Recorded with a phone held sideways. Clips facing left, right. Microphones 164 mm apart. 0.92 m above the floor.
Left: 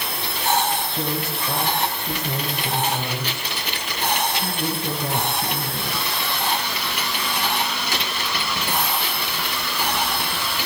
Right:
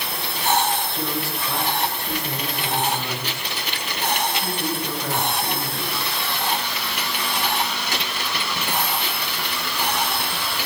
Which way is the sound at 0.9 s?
20° left (ahead or behind).